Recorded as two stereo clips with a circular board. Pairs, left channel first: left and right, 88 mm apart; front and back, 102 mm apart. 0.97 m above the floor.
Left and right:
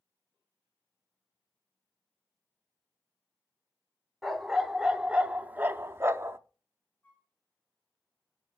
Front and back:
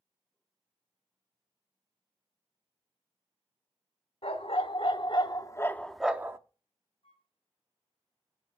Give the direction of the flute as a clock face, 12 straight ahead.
11 o'clock.